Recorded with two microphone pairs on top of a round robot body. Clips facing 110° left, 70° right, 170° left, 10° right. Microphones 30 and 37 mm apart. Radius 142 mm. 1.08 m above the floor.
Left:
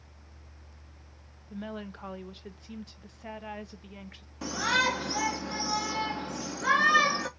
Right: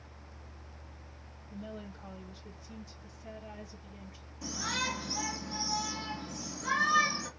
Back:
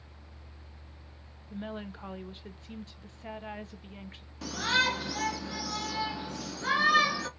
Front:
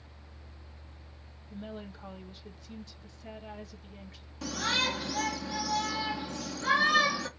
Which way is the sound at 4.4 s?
85° left.